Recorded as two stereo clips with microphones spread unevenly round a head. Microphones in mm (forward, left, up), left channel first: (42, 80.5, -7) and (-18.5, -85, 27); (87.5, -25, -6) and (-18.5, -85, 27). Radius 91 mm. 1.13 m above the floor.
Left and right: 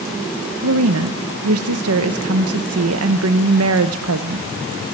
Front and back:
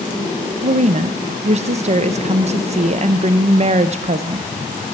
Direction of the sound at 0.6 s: 115° right.